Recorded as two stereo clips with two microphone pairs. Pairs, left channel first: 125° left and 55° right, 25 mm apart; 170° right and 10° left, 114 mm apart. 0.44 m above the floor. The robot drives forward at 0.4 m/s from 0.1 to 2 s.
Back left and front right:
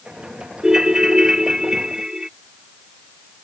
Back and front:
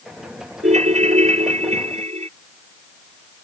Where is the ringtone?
10° left.